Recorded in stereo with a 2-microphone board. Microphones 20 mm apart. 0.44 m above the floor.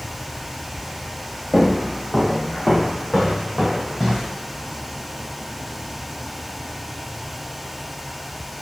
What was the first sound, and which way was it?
Footsteps, 15° left (ahead or behind).